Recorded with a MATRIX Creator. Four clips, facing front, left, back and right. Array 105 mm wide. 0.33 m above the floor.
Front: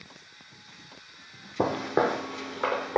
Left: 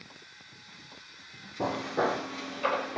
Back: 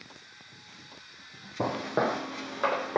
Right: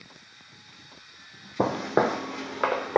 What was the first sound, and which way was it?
Footsteps, 60° right.